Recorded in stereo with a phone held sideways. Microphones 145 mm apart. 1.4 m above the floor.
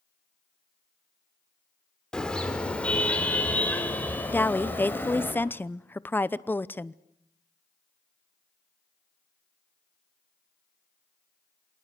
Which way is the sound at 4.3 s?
15° left (ahead or behind).